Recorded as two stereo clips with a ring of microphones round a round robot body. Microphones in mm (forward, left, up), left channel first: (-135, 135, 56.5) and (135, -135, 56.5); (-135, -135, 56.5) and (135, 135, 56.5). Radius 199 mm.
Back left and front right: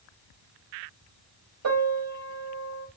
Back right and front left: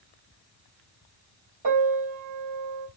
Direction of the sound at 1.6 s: Straight ahead.